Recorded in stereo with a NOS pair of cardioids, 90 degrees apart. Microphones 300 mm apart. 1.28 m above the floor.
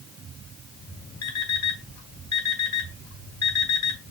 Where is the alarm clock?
65° left, 3.5 m.